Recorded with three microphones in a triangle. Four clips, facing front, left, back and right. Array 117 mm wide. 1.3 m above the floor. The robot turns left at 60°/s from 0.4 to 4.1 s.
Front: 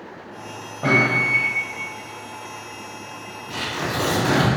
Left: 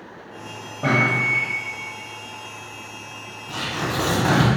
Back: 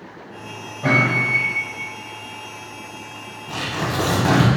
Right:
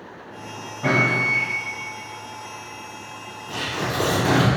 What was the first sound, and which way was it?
A microwave, 40° left.